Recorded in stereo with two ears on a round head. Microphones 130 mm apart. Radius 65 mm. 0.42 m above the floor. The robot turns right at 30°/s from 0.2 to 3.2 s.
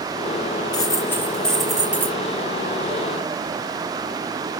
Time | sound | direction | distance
0.7 | a dropped coin | 150° left | 4.5 m